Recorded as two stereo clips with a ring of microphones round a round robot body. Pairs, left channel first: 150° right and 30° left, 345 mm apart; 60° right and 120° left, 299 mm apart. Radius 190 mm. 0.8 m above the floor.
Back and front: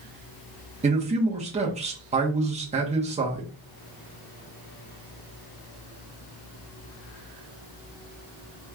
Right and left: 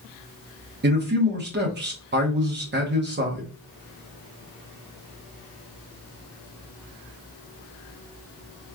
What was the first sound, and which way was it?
A man speaking, 90° left.